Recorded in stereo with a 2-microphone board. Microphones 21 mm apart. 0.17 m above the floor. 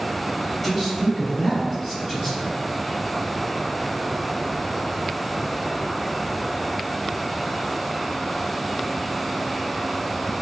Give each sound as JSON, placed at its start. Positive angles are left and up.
{"t": 0.6, "sound": "a man speaking", "side_deg": 0, "distance_m": 1.4}